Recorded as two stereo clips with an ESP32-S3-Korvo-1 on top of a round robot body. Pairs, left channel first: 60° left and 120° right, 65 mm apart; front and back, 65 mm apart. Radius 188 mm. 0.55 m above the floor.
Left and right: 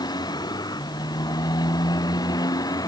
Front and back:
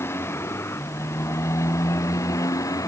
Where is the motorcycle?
50° left; by 2.9 s 35° left.